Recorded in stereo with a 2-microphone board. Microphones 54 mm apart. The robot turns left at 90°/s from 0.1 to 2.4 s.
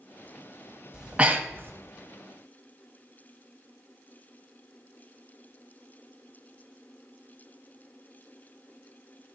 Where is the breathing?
10° right (ahead or behind), 0.9 m; by 1.7 s 45° right (ahead or behind), 0.9 m.